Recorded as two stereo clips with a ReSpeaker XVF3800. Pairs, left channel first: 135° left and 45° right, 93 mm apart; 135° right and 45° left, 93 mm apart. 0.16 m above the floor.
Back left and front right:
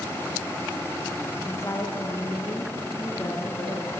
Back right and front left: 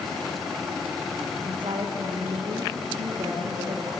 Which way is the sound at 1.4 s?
75° left.